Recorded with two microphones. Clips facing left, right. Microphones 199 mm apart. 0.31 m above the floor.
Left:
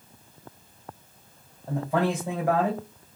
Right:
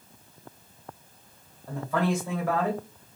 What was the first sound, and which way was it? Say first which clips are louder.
A man speaking: left 2 dB; 15° left (ahead or behind).